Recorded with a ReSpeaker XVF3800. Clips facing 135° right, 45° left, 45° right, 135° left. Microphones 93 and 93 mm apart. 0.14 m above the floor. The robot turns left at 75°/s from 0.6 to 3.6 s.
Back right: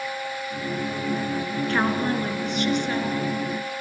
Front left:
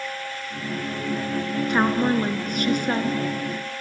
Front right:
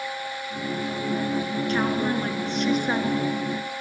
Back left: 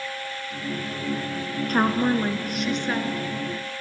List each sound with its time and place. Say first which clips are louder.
1.7 s a woman speaking: front left 3 dB, back left 4 dB; 115° left, 1.5 m; by 3.2 s straight ahead, 1.5 m